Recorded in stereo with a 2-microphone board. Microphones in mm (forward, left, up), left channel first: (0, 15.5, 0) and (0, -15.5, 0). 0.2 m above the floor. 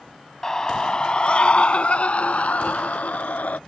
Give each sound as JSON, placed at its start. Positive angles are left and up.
{"t": 0.4, "sound": "a scream", "side_deg": 20}